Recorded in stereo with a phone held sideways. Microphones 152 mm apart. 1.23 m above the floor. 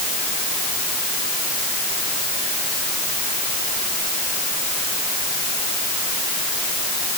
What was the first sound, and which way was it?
Only background noise.